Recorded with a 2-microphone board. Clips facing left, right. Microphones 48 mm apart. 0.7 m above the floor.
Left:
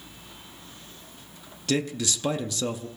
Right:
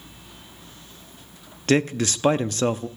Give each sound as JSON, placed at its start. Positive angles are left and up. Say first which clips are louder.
{"t": 1.7, "sound": "a man speaking", "louder": "right 6 dB", "side_deg": -45, "distance_m": 0.6}